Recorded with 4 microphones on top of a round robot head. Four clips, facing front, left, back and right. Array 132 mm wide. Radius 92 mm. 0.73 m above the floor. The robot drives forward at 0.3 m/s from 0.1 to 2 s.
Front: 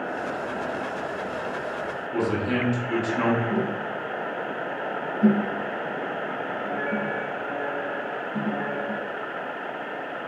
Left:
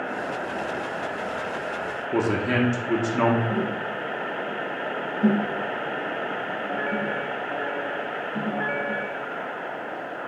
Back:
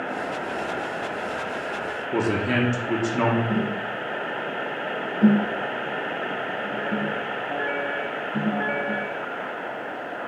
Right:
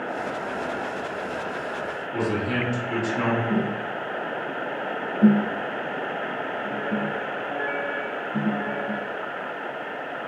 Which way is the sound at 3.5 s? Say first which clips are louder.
Right 1 dB, even; 115° right.